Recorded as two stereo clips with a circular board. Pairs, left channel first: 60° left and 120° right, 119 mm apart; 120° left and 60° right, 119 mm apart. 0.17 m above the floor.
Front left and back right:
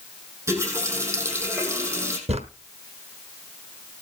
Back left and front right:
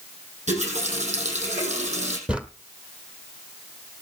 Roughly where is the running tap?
Ahead right.